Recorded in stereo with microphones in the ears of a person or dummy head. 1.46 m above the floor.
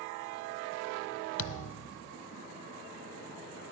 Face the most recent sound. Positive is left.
turn(degrees=75)  # may be behind; listen again after turning